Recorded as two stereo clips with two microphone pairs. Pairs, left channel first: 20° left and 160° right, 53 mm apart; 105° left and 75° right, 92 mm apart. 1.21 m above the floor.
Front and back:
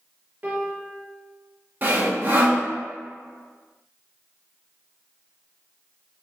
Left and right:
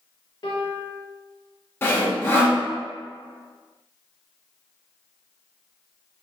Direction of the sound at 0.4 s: 140° left.